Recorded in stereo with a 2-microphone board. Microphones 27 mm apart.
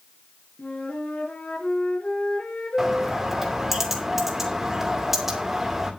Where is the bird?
15° right (ahead or behind), 2.5 m.